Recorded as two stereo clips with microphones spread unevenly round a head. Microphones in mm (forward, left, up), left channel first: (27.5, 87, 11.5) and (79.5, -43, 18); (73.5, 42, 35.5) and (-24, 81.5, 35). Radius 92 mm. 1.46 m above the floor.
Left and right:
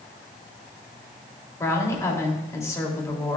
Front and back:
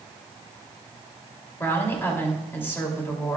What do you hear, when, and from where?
1.6 s a woman speaking: 45° left, 3 m